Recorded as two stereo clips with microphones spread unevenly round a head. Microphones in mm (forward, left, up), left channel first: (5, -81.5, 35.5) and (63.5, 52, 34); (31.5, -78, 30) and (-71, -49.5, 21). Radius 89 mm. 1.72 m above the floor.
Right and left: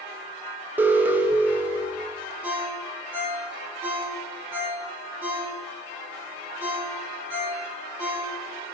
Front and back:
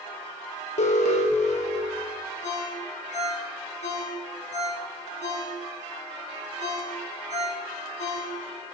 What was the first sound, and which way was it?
An alarm, 10° right.